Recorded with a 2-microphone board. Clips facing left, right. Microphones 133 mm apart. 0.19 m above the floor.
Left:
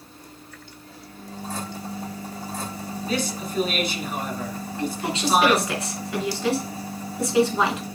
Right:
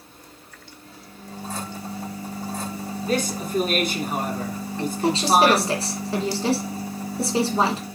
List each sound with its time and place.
3.0 s a man speaking: 50° right (ahead or behind), 1.5 m
4.8 s a woman speaking: 35° right (ahead or behind), 1.9 m